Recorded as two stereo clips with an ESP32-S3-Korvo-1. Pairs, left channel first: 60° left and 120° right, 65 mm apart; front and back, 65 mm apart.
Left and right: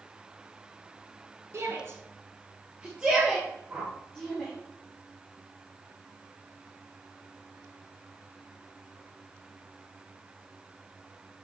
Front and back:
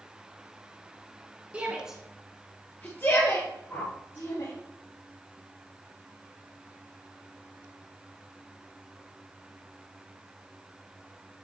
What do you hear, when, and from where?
1.5 s a shout: 120° right, 1.5 m; by 4.5 s 25° right, 3 m
3.7 s a whoosh: 50° right, 1.6 m